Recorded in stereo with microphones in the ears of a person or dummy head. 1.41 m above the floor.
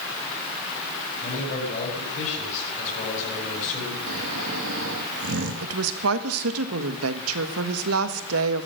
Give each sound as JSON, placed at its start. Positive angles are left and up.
{"t": 1.2, "sound": "a man speaking", "side_deg": 45, "distance_m": 7.5}
{"t": 4.1, "sound": "snoring", "side_deg": -70, "distance_m": 2.5}
{"t": 5.6, "sound": "a woman speaking", "side_deg": -80, "distance_m": 1.6}